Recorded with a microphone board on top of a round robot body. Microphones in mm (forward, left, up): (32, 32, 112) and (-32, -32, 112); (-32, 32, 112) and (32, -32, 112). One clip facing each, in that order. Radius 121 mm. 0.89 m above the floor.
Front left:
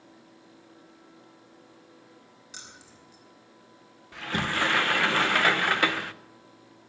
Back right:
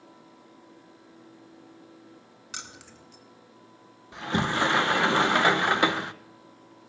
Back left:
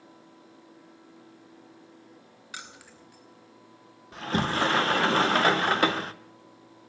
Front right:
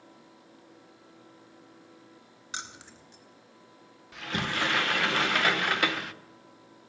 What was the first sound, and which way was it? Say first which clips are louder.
Keys jangling: back right 6 dB, front right 3 dB; 110° right.